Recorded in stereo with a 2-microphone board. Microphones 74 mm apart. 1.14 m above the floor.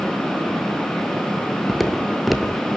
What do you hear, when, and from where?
1.7 s footsteps: centre (ahead or behind), 1.4 m